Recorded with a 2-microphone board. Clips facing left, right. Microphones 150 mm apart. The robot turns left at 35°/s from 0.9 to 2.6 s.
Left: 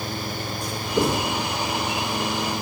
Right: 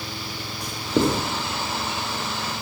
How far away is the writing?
About 6 m.